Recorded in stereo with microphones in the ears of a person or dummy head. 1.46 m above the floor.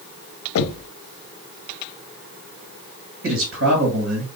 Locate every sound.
0.6 s knocking: 80° left, 0.5 m
3.2 s a man speaking: 80° right, 2.5 m